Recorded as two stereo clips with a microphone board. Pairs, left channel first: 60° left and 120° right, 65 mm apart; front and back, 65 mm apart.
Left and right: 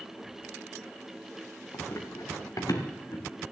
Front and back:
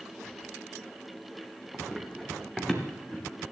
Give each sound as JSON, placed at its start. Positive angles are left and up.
{"t": 1.7, "sound": "running footsteps", "azimuth_deg": 90, "distance_m": 3.0}